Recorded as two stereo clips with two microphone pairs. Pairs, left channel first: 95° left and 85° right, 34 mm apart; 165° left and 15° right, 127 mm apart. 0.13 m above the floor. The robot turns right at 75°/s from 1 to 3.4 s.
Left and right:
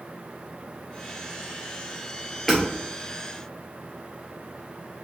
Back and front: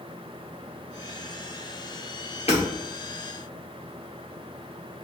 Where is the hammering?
175° right, 2 m; by 2.6 s 165° right, 2 m.